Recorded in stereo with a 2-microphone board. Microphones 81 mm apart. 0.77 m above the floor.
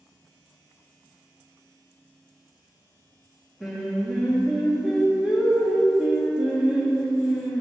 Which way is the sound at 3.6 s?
5° right (ahead or behind).